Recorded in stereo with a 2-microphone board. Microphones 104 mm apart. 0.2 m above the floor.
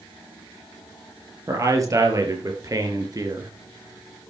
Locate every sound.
1.5 s a man speaking: 35° right (ahead or behind), 4.5 m; by 3.5 s 40° right (ahead or behind), 3 m